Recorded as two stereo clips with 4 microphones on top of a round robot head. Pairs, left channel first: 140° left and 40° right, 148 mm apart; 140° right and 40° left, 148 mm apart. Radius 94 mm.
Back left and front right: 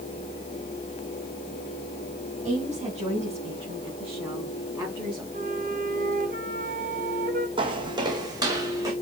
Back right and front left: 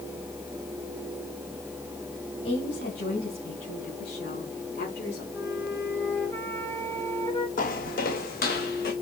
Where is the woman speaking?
100° right, 3.5 m; by 5.2 s 120° right, 5 m.